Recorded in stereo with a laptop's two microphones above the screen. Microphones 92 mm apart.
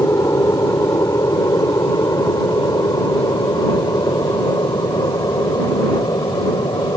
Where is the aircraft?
35° left (ahead or behind); by 7.0 s 45° left (ahead or behind).